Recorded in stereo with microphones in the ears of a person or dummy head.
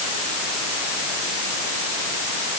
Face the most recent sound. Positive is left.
No sound to turn to.